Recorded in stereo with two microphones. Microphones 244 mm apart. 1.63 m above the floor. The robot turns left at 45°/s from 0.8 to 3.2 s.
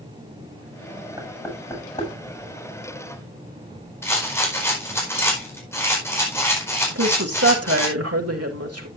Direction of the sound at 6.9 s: 75° right (ahead or behind).